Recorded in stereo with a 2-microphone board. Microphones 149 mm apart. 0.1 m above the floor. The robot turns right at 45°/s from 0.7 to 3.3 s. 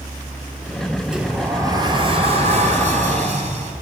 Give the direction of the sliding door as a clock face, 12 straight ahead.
6 o'clock.